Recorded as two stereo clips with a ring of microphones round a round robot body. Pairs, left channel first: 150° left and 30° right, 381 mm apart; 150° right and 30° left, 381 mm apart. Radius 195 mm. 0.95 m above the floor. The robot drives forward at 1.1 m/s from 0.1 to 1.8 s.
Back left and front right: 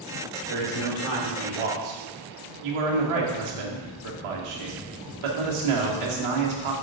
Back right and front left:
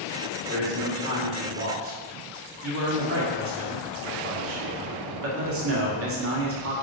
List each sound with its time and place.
0.5 s a man speaking: 15° right, 3.5 m; by 6.7 s 25° right, 2 m